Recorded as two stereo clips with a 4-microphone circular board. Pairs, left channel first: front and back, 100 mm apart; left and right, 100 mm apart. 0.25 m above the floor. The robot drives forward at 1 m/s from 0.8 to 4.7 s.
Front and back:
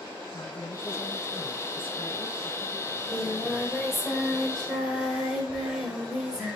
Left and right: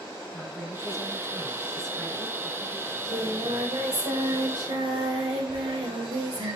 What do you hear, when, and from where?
0.3 s a woman speaking: straight ahead, 4.5 m; by 2.8 s 5° left, 2.5 m
2.9 s singing: 80° right, 6 m; by 6.6 s 100° right, 6 m